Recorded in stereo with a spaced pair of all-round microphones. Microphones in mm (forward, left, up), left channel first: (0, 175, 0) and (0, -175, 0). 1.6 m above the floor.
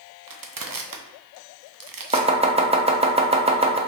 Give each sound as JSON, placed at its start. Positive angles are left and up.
{"t": 0.3, "sound": "crushing", "side_deg": -70, "distance_m": 0.6}
{"t": 2.1, "sound": "chopping", "side_deg": -15, "distance_m": 0.6}